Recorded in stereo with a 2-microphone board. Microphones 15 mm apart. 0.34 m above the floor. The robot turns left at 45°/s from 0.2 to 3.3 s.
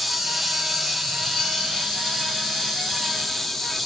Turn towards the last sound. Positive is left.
turn(degrees=35)